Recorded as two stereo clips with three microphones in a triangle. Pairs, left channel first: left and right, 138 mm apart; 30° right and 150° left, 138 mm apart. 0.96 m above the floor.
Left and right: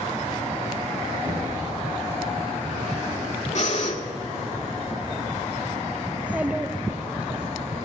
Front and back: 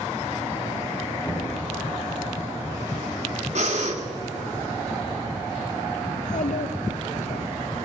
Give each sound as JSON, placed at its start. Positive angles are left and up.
{"t": 1.2, "sound": "knocking", "azimuth_deg": -85, "distance_m": 6.0}
{"t": 3.5, "sound": "breathing", "azimuth_deg": 120, "distance_m": 1.7}
{"t": 6.1, "sound": "a child speaking", "azimuth_deg": -10, "distance_m": 0.5}